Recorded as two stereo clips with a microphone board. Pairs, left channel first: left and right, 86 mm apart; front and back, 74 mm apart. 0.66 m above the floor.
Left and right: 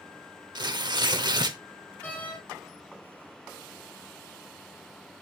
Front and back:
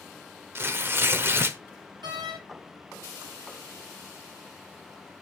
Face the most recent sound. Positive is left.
turn(degrees=165)